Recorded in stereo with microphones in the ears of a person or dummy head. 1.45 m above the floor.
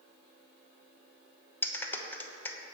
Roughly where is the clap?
Centre.